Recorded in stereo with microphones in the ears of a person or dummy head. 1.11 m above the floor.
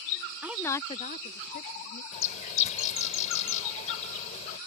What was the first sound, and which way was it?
A woman speaking, 10° right (ahead or behind).